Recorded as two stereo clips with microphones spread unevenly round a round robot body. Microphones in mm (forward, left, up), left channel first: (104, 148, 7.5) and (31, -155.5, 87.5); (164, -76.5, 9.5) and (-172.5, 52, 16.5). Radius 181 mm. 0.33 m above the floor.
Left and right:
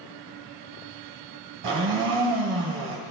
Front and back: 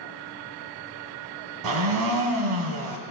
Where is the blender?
165° right, 1.0 m.